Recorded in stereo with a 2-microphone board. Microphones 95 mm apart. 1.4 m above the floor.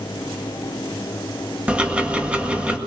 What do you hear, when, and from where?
1.7 s ticking: 15° right (ahead or behind), 1.8 m